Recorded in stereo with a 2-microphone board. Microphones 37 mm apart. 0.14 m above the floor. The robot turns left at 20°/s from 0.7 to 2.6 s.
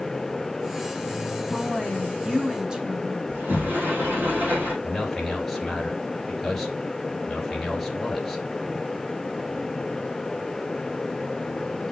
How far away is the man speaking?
About 2.5 m.